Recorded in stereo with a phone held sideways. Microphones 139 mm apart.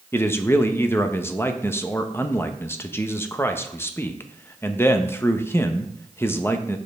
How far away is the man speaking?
About 0.6 m.